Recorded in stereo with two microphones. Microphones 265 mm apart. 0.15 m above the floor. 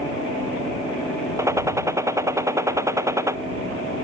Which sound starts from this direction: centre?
A gunshot, at 1.4 s.